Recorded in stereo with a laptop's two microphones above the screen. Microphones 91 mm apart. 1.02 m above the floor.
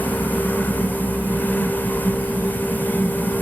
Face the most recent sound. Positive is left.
turn(degrees=20)  # may be behind; listen again after turning